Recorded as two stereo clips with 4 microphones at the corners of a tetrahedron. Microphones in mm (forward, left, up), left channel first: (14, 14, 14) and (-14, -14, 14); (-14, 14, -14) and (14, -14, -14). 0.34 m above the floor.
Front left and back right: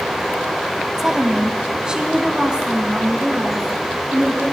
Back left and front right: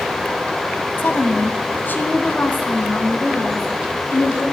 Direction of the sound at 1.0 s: 150° left.